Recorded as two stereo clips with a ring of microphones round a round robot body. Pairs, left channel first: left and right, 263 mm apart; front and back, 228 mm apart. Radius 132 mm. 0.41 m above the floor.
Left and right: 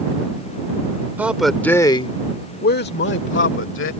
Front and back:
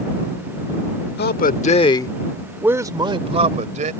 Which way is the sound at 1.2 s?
10° right.